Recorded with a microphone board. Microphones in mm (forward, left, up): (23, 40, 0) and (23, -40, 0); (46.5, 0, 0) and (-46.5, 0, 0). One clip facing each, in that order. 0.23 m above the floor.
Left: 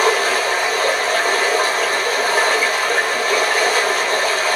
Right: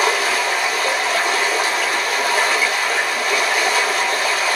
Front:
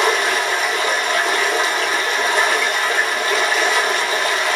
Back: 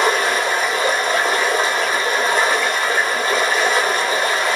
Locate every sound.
0.0 s running water: 130° left, 1.6 m